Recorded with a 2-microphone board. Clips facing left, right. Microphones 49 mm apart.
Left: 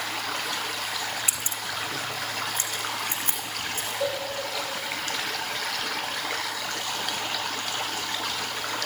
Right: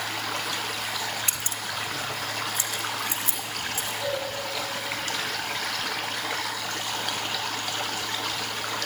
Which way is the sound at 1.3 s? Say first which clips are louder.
Even; 10° left (ahead or behind).